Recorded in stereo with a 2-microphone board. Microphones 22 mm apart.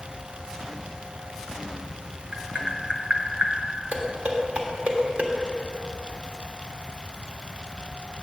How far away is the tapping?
About 0.7 m.